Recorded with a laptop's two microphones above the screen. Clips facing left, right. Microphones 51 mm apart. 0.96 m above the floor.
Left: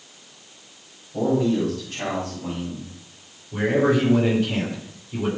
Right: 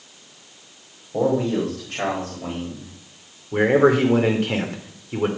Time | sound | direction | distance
1.1 | a man speaking | 75° right (ahead or behind) | 4 m
3.5 | a man speaking | 60° right (ahead or behind) | 2.5 m